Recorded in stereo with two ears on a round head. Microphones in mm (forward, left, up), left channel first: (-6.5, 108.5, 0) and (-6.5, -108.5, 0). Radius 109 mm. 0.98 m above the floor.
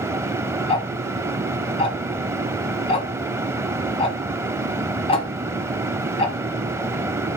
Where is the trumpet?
No trumpet in this recording.